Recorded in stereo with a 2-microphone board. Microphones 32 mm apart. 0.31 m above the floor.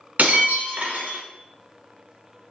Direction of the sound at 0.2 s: 70° right (ahead or behind).